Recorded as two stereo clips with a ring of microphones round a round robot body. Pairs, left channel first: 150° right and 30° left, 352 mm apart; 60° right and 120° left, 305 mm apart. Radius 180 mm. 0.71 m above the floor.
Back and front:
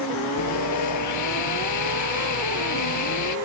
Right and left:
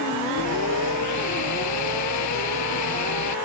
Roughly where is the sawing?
Right.